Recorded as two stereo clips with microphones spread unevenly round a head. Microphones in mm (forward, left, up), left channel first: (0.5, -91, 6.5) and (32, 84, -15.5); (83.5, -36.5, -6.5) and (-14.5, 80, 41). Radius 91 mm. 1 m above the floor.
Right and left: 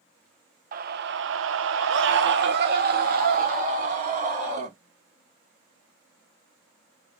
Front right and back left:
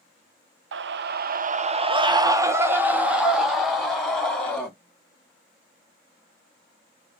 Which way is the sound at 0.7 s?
125° left.